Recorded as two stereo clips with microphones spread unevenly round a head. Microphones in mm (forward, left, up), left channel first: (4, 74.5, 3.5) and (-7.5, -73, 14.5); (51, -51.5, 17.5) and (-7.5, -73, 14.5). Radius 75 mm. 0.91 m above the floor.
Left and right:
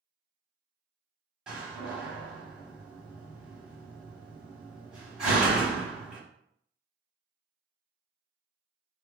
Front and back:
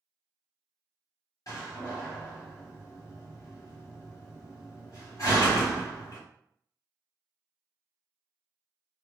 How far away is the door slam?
About 1.6 m.